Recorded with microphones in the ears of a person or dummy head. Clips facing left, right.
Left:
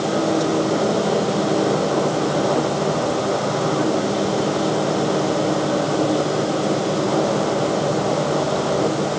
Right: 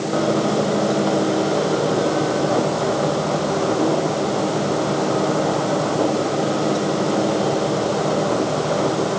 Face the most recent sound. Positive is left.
No sound to turn to.